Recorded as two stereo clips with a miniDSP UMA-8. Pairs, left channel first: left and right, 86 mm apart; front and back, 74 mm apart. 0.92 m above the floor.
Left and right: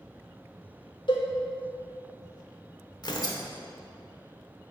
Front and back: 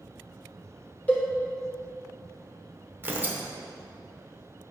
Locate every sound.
1.1 s a cowbell: 70° left, 1.3 m
3.0 s tearing paper: 120° left, 0.8 m